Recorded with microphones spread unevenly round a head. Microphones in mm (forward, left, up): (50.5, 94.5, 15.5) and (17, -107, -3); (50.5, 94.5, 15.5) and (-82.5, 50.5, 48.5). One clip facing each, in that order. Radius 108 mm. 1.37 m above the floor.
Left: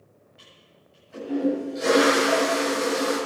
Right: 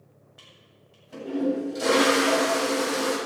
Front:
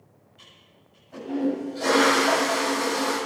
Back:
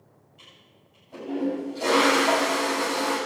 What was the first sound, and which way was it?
A toilet flushing, 80° right.